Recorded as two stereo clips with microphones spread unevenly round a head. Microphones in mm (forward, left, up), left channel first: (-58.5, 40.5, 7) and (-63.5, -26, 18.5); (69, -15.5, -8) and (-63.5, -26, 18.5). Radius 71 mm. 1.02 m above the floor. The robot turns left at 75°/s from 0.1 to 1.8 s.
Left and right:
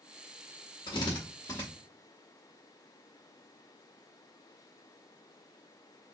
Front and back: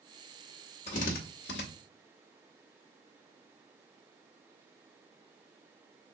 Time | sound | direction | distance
0.9 | a drill | 60° left | 0.8 m